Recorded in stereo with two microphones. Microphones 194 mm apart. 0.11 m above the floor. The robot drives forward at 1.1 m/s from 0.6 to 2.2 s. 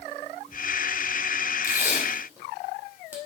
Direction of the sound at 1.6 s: 15° right (ahead or behind).